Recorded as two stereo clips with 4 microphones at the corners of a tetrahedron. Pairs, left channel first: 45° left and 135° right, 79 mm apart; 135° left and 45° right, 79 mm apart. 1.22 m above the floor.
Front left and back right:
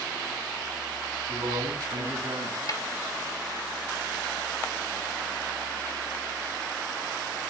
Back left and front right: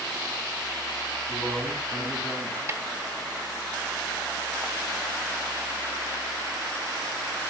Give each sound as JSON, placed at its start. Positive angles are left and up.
{"t": 1.3, "sound": "a man speaking", "azimuth_deg": -155, "distance_m": 10.0}
{"t": 2.7, "sound": "a snare drum", "azimuth_deg": 10, "distance_m": 1.6}